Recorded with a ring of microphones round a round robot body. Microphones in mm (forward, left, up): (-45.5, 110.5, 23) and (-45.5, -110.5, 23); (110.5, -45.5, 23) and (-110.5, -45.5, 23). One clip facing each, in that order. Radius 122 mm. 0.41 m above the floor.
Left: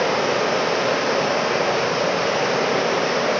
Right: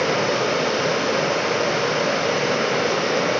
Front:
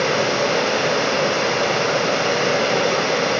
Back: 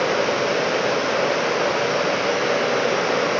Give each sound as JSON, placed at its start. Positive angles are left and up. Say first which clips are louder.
{"t": 0.0, "sound": "running water", "louder": "even, front 1 dB", "azimuth_deg": -30, "distance_m": 1.7}